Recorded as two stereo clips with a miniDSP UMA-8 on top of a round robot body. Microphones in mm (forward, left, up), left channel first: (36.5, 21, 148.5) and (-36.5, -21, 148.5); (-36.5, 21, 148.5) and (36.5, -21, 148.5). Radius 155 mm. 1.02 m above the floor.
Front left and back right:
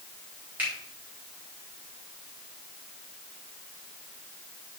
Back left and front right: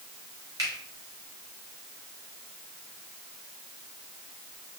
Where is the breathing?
No breathing in this recording.